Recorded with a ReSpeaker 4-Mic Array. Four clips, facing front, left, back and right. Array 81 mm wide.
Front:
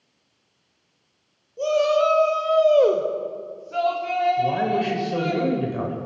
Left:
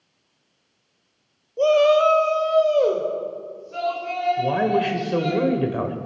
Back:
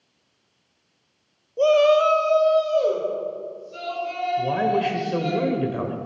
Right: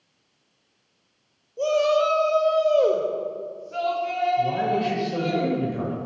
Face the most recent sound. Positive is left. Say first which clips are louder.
# left 2 dB, even
turn(degrees=105)